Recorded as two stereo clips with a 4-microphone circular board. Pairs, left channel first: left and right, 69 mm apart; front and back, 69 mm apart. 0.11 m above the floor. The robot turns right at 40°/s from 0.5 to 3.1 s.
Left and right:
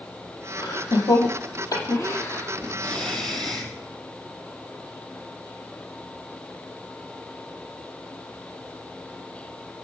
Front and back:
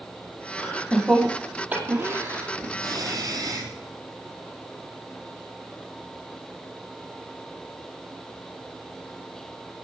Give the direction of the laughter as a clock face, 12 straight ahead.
10 o'clock.